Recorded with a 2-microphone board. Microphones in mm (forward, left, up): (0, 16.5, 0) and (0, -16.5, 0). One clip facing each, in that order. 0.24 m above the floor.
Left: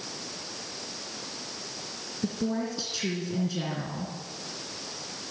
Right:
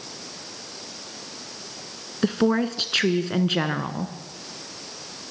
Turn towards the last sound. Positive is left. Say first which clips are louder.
# right 9 dB
turn(degrees=-65)  # may be behind; listen again after turning